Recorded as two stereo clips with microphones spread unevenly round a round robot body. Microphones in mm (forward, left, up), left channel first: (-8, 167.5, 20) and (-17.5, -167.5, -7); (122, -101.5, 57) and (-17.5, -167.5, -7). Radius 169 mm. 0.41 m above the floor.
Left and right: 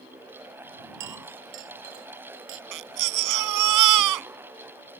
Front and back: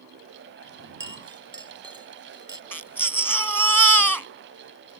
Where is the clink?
90° right.